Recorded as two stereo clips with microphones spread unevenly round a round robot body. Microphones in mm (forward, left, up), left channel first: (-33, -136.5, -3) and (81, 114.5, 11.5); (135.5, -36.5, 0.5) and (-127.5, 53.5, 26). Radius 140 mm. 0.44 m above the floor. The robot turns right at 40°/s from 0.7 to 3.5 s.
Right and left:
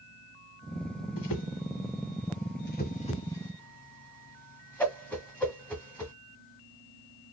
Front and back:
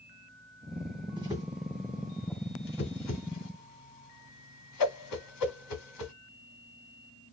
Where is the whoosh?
125° right, 1.5 m; by 6.1 s 30° right, 1.5 m.